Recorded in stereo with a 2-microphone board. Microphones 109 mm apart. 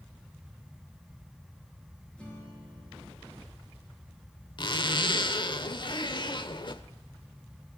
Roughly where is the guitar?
Centre.